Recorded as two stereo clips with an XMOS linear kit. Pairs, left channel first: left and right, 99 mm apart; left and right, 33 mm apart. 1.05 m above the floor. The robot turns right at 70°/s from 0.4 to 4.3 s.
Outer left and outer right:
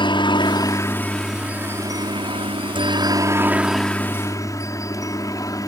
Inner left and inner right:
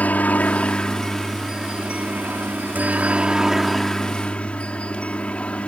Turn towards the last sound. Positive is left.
turn(degrees=35)  # may be behind; listen again after turning